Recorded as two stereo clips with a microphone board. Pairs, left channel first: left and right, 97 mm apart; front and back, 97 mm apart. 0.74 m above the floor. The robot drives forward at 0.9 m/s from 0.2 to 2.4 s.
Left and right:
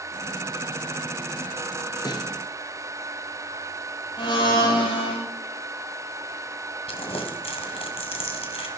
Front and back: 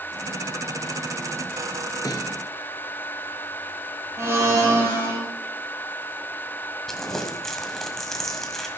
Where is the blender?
120° left, 5 m.